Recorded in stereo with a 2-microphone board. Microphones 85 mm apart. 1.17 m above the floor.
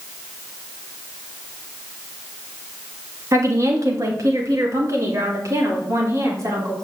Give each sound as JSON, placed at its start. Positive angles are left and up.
{"t": 3.3, "sound": "a woman speaking", "side_deg": -40, "distance_m": 2.0}